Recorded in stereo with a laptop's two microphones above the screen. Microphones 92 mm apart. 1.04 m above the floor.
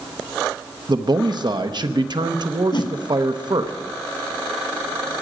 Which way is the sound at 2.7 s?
55° left (ahead or behind).